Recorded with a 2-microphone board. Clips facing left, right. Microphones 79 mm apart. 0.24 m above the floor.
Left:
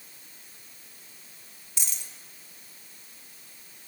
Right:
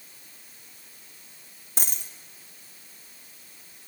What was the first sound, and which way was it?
A dropped coin, 45° right (ahead or behind).